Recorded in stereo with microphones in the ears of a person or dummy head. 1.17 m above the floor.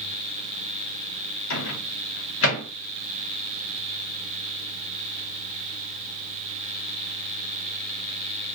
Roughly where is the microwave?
Left.